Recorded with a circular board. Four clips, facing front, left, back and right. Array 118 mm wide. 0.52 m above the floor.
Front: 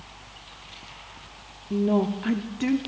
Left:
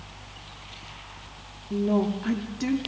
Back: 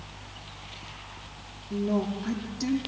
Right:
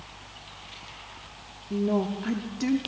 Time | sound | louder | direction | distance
1.7 | a woman speaking | left 2 dB, front 5 dB | straight ahead | 0.7 m